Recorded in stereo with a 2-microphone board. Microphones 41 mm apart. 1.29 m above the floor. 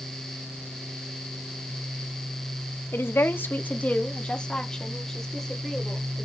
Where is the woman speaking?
80° left, 1.4 m; by 6.3 s centre (ahead or behind), 4 m.